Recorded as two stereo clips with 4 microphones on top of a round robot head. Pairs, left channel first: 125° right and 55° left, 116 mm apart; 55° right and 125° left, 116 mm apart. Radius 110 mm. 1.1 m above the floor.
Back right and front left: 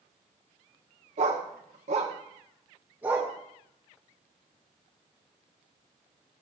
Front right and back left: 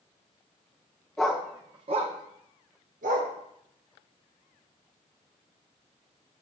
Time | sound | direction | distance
1.2 | a dog barking | 30° left | 1.1 m